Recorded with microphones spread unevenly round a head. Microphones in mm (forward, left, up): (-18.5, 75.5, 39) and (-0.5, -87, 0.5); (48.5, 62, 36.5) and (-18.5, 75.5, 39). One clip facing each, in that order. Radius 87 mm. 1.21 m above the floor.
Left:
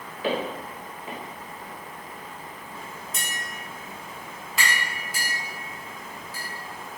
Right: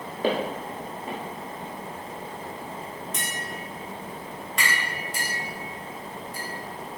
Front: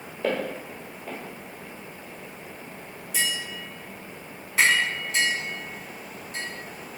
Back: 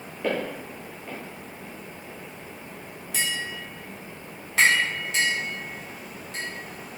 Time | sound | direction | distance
0.2 | footsteps | 85° right | 1.2 m
3.1 | tapping | straight behind | 1.3 m